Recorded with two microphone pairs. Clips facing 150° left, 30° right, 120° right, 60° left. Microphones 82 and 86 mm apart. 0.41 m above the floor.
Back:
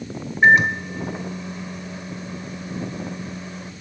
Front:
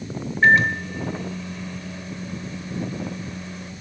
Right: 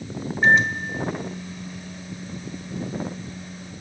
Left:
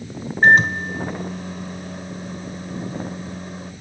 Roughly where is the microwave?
Left.